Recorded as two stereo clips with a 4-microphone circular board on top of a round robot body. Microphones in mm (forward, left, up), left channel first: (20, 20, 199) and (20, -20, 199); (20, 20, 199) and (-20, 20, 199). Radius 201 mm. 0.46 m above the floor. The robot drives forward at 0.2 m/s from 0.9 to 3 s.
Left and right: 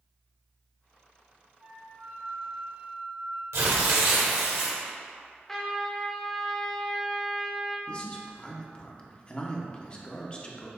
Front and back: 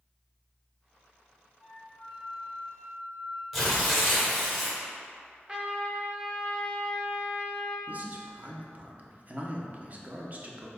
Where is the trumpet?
155° left, 1.2 m.